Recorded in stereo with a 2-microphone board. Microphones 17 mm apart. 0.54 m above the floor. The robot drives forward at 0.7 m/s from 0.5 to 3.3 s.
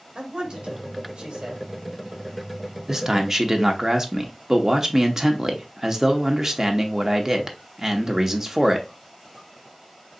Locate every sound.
0.1 s a man speaking: 60° right (ahead or behind), 1.9 m; by 1.7 s 70° right (ahead or behind), 1.8 m
2.9 s a man speaking: 35° right (ahead or behind), 0.7 m; by 8.9 s 30° right (ahead or behind), 0.8 m